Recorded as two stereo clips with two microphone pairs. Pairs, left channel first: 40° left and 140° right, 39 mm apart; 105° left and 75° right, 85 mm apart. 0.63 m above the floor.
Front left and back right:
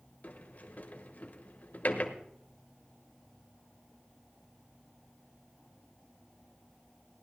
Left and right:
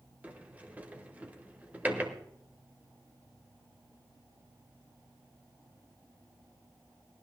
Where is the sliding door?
5° right, 1.2 m.